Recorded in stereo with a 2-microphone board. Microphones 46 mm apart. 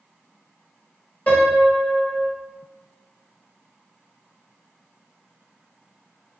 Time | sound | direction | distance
1.3 | a piano | 35° left (ahead or behind) | 1.2 m